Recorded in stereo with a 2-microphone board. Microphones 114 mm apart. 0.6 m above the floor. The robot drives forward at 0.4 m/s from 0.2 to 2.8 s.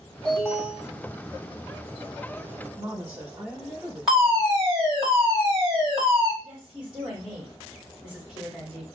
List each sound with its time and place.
0.2 s an alarm: 10° left (ahead or behind), 2 m
2.8 s a woman speaking: 15° right (ahead or behind), 1.0 m; by 4.5 s 10° right (ahead or behind), 1.0 m
4.1 s a fire alarm: 5° right (ahead or behind), 1.7 m
6.4 s a woman speaking: 10° right (ahead or behind), 1.6 m